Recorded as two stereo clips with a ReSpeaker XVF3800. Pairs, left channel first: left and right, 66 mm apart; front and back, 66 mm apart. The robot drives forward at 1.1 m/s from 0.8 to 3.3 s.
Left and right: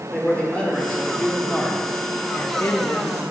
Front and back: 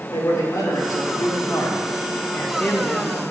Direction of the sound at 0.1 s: 20° left.